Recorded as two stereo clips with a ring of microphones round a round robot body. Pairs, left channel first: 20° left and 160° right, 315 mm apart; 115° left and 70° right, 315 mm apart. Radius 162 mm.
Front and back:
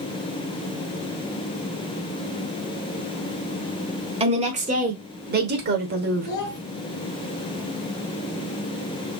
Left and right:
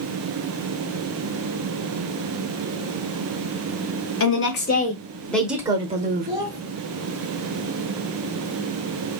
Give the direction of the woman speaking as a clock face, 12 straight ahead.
7 o'clock.